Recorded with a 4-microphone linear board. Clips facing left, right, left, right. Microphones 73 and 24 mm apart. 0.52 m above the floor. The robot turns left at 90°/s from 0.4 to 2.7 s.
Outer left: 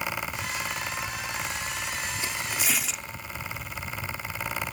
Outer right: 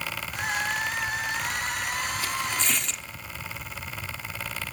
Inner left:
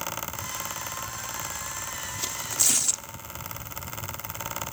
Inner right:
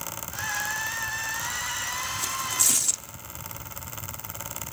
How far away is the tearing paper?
About 1.0 m.